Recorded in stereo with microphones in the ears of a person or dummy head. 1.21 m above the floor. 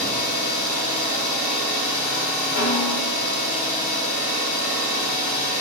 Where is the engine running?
45° left (ahead or behind), 0.9 m.